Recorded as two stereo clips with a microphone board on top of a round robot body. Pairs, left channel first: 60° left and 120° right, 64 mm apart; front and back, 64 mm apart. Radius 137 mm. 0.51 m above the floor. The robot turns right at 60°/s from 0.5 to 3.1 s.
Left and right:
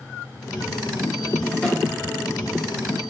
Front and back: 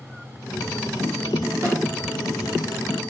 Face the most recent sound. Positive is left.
turn(degrees=-130)